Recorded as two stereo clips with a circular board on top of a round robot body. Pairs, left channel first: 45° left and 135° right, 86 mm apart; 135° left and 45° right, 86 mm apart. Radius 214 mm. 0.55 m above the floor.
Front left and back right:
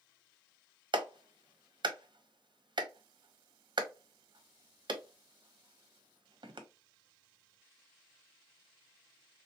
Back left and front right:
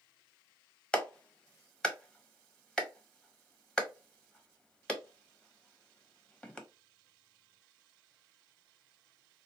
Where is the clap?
145° right, 1.1 m.